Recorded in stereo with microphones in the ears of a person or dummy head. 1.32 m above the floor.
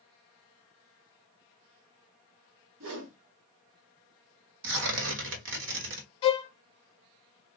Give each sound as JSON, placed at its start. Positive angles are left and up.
{"t": 2.8, "sound": "a whoosh", "side_deg": -65, "distance_m": 0.8}
{"t": 4.6, "sound": "tearing paper", "side_deg": -65, "distance_m": 1.2}
{"t": 6.2, "sound": "a violin", "side_deg": 30, "distance_m": 0.6}